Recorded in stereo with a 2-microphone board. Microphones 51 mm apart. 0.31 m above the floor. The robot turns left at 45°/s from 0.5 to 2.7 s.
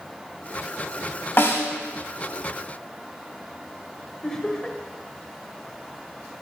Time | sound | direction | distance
1.4 | a snare drum | 45° left (ahead or behind) | 2 m
4.2 | laughter | 10° left (ahead or behind) | 1.0 m